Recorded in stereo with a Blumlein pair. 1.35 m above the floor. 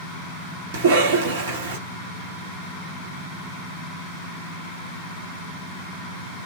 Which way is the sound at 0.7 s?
65° right.